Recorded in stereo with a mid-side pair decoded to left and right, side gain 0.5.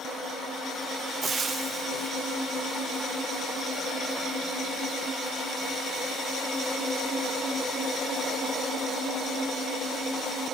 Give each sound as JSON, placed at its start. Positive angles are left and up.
{"t": 1.2, "sound": "frying", "azimuth_deg": -35, "distance_m": 0.6}